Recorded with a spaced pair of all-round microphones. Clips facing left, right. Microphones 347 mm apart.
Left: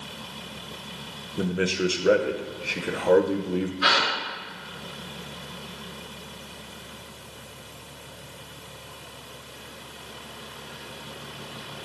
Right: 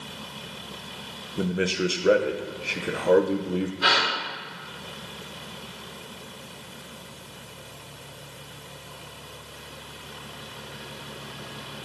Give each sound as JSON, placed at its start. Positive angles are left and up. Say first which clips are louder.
{"t": 1.4, "sound": "a man speaking", "louder": "even", "side_deg": 0, "distance_m": 0.8}
{"t": 3.8, "sound": "a gasp", "louder": "even", "side_deg": -55, "distance_m": 4.0}